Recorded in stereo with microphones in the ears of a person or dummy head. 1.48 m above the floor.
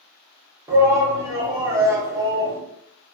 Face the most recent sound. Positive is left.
turn(degrees=-15)  # may be behind; listen again after turning